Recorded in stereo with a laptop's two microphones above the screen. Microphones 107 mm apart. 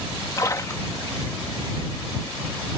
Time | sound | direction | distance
0.4 | a splash | 30° left (ahead or behind) | ?